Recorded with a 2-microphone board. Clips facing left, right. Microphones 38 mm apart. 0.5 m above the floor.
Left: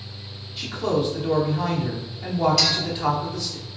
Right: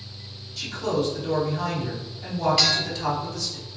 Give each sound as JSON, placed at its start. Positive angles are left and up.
{"t": 0.6, "sound": "a man speaking", "side_deg": 25, "distance_m": 0.8}
{"t": 2.6, "sound": "a clink", "side_deg": -35, "distance_m": 1.5}